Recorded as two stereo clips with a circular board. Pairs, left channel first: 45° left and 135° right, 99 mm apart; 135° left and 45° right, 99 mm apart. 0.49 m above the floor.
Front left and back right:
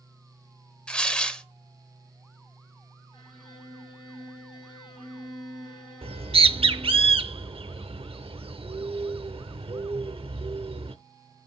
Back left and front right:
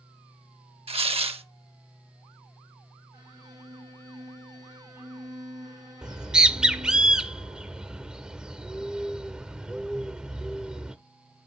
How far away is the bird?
About 0.6 m.